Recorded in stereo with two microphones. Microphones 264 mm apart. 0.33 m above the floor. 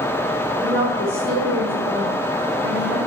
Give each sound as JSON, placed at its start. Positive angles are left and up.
{"t": 0.6, "sound": "a woman speaking", "side_deg": -40, "distance_m": 4.0}